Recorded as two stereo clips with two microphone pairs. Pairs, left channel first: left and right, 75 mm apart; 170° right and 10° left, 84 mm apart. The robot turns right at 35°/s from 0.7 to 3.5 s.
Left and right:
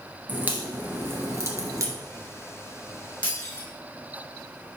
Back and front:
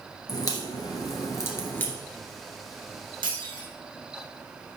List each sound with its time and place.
0.3 s a crack: 150° right, 1.8 m; by 1.9 s 110° right, 1.8 m
3.2 s breaking glass: 20° left, 2.5 m; by 3.7 s 30° left, 2.5 m